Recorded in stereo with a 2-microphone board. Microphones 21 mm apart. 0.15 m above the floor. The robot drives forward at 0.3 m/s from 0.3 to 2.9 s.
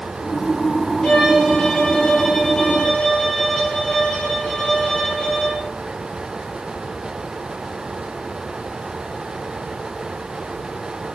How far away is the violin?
About 1.4 m.